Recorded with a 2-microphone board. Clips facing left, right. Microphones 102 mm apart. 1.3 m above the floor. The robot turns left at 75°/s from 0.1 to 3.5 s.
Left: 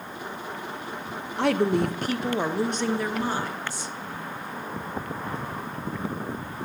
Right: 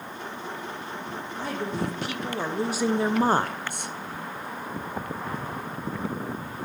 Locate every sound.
1.4 s a woman speaking: 95° left, 0.5 m; by 3.9 s 65° right, 0.5 m